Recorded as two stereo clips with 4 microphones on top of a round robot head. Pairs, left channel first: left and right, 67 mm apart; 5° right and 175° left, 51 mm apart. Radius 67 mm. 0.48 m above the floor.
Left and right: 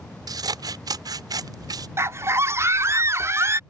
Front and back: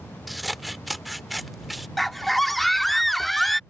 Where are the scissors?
90° right.